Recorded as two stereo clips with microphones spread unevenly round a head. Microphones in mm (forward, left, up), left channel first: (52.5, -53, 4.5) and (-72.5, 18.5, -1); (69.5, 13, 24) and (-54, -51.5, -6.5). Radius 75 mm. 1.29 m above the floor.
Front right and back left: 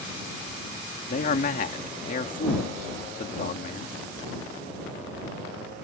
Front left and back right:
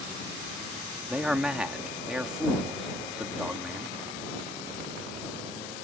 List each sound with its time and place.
1.1 s a man speaking: 65° right